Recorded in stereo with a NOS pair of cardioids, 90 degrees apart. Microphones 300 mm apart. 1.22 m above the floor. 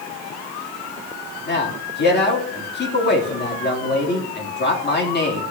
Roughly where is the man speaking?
Ahead left.